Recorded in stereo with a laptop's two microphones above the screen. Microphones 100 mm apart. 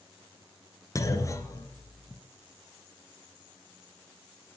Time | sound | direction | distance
0.9 | a clunk | 30° left (ahead or behind) | 2 m